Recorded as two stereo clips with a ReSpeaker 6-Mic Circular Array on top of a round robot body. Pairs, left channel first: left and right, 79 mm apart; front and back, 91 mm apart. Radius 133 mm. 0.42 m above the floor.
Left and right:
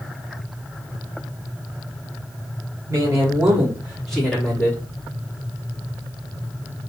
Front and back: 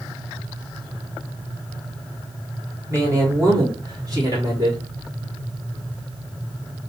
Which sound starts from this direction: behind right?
A man speaking, at 2.9 s.